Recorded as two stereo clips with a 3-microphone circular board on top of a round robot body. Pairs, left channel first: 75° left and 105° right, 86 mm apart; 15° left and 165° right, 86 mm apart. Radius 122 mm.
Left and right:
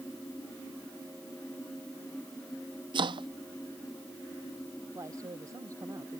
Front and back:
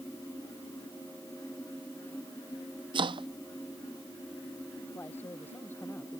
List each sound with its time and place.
2.9 s chopping: 135° right
5.0 s a man speaking: 55° right